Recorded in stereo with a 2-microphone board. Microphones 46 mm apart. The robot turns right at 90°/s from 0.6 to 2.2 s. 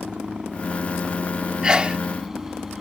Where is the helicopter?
160° right; by 2.8 s 15° right.